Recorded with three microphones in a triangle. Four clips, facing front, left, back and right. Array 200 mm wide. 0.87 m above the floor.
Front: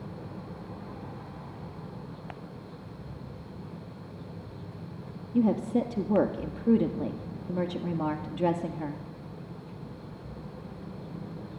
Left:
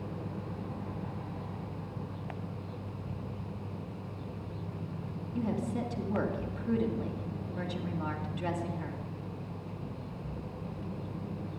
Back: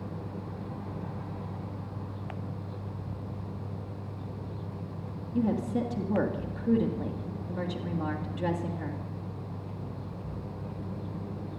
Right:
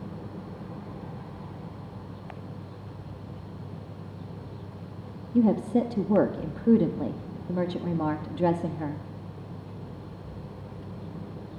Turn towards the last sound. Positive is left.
turn(degrees=-65)